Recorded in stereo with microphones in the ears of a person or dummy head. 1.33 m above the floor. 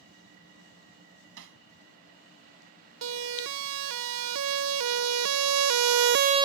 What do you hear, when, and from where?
1.4 s hammering: 65° right (ahead or behind)
3.0 s a siren: 65° right (ahead or behind); by 6.5 s 20° right (ahead or behind)